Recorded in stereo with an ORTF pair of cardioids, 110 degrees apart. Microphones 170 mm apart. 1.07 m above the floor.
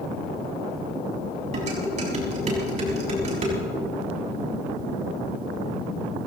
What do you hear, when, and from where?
1.5 s dishes clattering: 40° right, 6 m